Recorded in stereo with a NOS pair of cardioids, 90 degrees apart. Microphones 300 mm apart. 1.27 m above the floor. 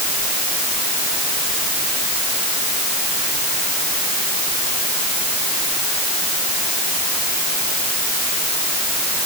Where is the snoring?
I don't hear snoring.